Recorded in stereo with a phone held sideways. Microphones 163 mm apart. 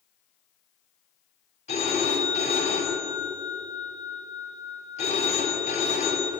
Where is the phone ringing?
45° left (ahead or behind), 3.5 m.